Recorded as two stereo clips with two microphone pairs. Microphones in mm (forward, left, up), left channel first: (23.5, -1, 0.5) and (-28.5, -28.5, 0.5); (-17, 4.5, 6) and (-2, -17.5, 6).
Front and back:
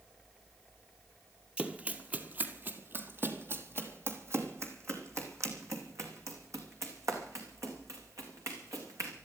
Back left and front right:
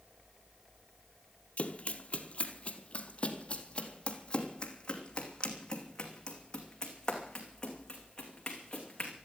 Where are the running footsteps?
145° left, 1.5 m; by 9.1 s 170° right, 5 m.